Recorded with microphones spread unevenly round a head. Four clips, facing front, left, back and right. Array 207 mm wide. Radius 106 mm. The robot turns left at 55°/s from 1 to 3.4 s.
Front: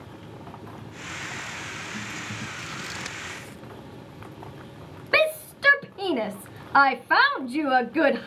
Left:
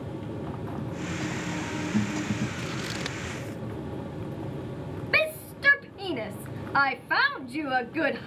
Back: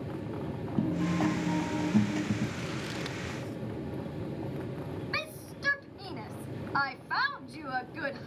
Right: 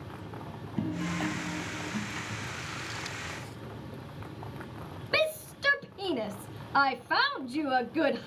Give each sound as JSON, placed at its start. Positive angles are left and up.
{"t": 0.8, "sound": "a guitar", "azimuth_deg": -160}
{"t": 2.6, "sound": "scissors", "azimuth_deg": 100}
{"t": 5.1, "sound": "a shout", "azimuth_deg": -5}